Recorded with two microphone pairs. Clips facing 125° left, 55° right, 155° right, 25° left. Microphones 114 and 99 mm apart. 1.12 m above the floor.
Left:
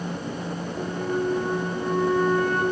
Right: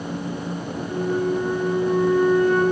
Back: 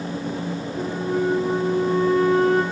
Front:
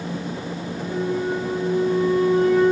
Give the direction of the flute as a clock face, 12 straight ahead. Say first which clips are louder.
Right 3 dB, back 1 dB; 7 o'clock.